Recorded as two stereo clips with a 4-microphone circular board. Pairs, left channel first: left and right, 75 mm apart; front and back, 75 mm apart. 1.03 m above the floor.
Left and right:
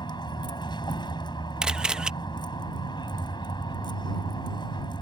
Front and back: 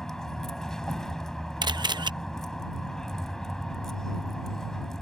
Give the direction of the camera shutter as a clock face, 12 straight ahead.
6 o'clock.